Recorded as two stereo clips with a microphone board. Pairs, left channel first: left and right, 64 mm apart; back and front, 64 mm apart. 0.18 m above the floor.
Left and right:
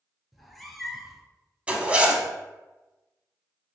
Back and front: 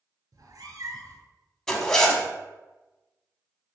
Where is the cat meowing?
Straight ahead, 0.6 m.